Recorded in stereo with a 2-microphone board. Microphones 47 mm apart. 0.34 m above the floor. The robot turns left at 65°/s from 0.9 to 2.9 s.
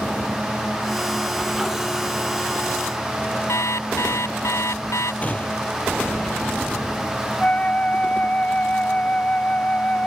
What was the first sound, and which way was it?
An alarm clock, 75° left (ahead or behind).